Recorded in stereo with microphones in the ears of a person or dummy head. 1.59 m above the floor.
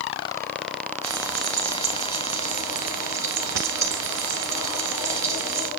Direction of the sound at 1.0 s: 15° right (ahead or behind).